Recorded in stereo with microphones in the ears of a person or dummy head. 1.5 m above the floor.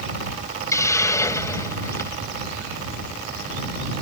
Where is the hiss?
15° left (ahead or behind).